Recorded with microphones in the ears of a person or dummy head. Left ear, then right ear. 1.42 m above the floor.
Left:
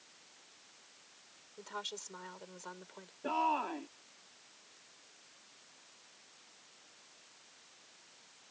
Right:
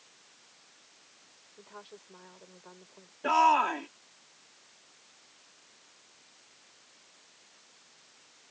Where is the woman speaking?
75° left (ahead or behind); by 3.1 s 65° left (ahead or behind).